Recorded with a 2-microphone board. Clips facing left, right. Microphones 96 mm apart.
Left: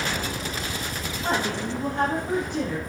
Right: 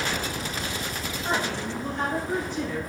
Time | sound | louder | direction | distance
1.2 | a woman speaking | left 2 dB | 70° left (ahead or behind) | 3 m